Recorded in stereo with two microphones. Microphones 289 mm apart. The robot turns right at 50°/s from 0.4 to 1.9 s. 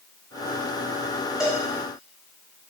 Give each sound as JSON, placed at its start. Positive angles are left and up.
{"t": 1.4, "sound": "a cowbell", "side_deg": 0, "distance_m": 0.7}